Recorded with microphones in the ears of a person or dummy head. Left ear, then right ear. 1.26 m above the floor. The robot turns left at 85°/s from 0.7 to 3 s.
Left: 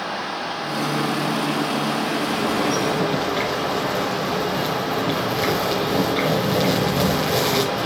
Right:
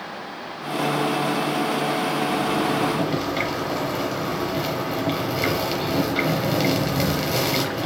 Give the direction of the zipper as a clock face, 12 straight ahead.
10 o'clock.